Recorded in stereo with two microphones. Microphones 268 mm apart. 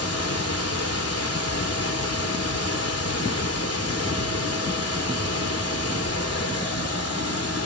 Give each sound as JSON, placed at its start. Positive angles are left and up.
{"t": 0.0, "sound": "running water", "side_deg": 60, "distance_m": 3.0}